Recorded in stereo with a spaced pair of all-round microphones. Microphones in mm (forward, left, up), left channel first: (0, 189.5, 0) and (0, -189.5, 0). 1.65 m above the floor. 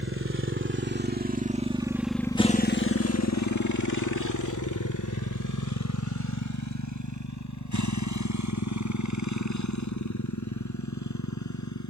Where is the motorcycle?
35° right (ahead or behind); by 11.9 s 50° left (ahead or behind).